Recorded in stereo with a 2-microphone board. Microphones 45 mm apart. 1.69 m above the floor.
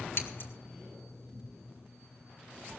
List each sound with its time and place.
0.1 s scissors: 55° left (ahead or behind), 2 m